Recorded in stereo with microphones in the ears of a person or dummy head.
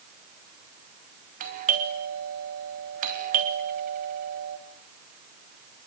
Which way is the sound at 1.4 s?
50° right (ahead or behind).